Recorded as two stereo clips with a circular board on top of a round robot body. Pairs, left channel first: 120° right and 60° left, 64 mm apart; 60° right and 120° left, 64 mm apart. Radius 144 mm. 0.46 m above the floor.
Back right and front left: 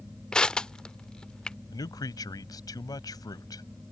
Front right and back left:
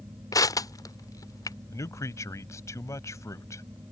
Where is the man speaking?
100° right.